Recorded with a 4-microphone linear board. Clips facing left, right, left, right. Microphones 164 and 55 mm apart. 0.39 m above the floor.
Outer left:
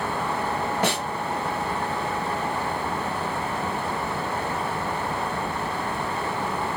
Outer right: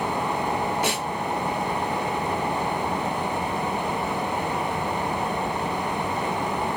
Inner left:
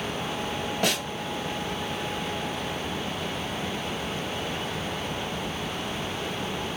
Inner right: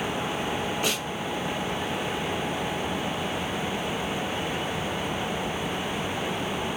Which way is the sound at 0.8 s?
55° left (ahead or behind).